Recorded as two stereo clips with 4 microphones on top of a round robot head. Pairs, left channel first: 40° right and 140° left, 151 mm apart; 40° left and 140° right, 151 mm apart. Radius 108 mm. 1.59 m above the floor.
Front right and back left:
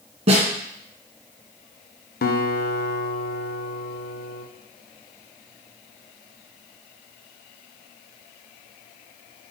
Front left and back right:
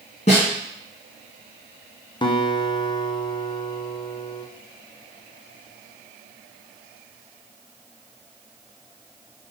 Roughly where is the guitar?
Ahead.